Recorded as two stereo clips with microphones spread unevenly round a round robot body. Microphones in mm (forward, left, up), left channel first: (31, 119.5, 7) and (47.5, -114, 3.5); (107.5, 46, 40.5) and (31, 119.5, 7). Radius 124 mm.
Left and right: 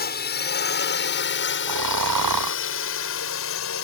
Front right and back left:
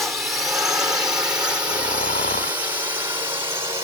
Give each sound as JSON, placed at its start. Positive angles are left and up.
{"t": 0.0, "sound": "a drone", "azimuth_deg": 60}
{"t": 1.7, "sound": "snoring", "azimuth_deg": -100}